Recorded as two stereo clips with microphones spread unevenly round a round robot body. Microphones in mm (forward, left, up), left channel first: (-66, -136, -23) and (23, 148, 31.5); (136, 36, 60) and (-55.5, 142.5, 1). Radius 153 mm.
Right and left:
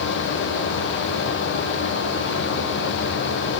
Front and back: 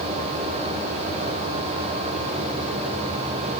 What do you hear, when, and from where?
Only background noise.